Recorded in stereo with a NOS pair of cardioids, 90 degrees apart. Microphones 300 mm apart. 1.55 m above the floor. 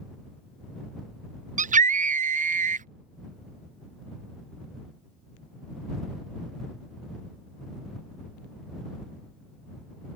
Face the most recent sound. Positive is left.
turn(degrees=-25)